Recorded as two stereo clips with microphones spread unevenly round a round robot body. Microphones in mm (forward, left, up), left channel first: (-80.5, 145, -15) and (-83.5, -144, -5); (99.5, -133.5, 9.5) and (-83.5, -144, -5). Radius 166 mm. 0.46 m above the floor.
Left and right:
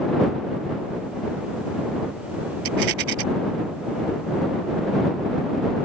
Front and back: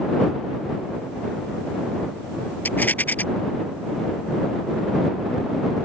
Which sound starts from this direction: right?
A rattle, at 2.6 s.